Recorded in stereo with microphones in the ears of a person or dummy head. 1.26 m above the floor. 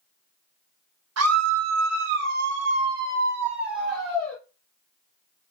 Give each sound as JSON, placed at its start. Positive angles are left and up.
{"t": 1.2, "sound": "a scream", "side_deg": -80, "distance_m": 1.0}